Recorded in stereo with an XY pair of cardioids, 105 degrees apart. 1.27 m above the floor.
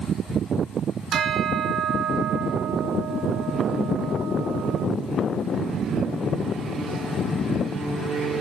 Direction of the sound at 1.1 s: 70° right.